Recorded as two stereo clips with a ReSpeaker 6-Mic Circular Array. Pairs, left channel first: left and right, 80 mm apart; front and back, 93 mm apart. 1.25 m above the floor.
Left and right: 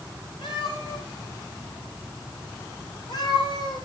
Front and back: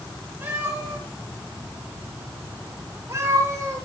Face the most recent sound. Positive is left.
turn(degrees=120)